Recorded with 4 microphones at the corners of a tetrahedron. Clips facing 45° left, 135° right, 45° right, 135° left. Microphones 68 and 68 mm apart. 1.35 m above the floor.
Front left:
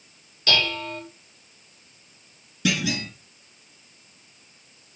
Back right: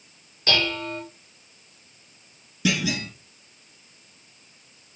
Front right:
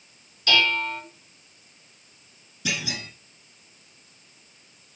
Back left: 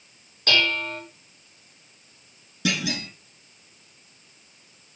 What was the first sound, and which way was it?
Dishes clattering, 170° left.